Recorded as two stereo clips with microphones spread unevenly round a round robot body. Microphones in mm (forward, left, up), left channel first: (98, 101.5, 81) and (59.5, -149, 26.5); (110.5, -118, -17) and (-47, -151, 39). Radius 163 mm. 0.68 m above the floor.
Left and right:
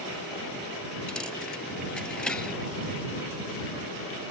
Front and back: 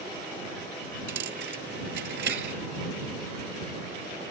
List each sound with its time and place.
1.1 s a dropped coin: 165° left